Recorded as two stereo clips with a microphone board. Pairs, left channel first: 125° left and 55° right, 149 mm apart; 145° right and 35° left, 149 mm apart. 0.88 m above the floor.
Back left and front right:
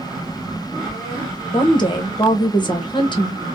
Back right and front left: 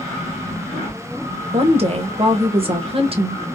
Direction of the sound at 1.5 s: 70° left.